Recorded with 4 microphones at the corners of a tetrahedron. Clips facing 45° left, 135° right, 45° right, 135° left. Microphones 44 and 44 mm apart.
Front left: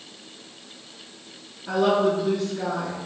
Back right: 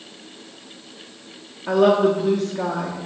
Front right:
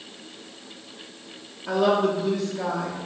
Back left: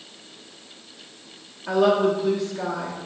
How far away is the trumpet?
No trumpet in this recording.